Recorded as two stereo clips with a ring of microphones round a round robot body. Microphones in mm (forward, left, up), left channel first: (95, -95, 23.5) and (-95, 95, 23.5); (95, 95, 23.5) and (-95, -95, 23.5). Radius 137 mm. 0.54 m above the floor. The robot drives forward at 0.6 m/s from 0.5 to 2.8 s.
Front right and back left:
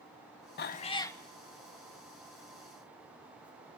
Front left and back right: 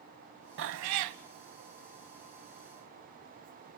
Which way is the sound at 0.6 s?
90° right.